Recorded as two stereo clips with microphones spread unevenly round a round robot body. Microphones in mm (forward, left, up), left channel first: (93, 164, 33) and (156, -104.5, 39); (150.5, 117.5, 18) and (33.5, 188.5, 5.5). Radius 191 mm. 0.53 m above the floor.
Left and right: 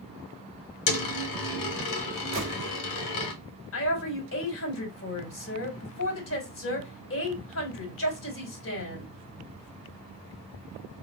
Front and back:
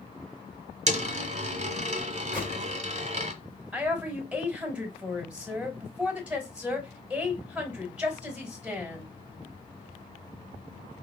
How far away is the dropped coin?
About 1.3 m.